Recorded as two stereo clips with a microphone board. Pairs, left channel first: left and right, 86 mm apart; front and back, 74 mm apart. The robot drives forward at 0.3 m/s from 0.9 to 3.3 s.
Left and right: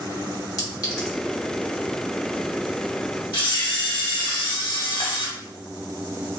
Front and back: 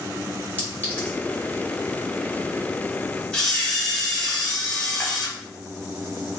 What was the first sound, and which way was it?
A clink, 55° left.